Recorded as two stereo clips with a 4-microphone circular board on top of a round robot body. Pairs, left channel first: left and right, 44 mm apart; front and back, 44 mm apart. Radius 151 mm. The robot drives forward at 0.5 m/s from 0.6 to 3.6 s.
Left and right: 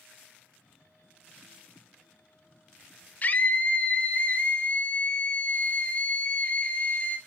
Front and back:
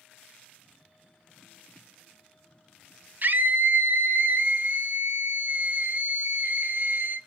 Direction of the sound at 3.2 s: 140° left.